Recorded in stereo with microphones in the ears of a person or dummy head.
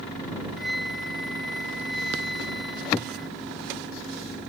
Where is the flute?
5° right (ahead or behind).